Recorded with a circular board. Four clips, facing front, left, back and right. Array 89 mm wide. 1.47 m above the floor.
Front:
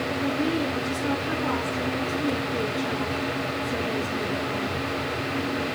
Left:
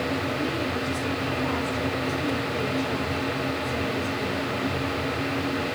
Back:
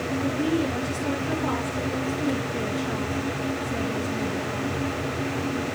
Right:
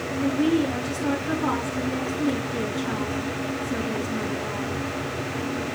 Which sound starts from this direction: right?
A woman speaking, at 0.2 s.